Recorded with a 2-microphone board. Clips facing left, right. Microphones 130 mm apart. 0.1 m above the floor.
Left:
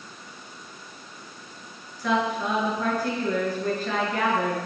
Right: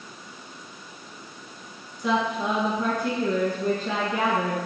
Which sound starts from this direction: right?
A woman speaking, at 2.0 s.